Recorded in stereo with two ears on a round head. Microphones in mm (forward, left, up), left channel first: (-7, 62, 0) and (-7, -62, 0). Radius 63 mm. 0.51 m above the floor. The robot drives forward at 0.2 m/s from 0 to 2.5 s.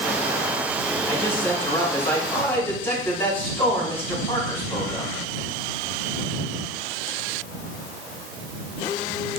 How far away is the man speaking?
About 4 m.